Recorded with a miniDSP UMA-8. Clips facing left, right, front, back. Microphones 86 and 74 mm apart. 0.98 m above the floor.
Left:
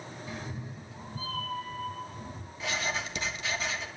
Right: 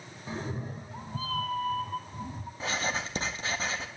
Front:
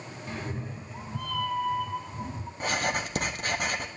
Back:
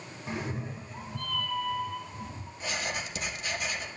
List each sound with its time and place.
0.3 s a cat meowing: 120° right, 0.8 m; by 2.5 s 65° right, 1.8 m
2.6 s writing: 35° right, 1.5 m